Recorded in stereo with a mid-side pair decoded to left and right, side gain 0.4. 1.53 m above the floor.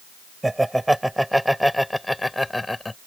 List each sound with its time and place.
0.4 s laughter: 10° right; by 3.0 s 20° left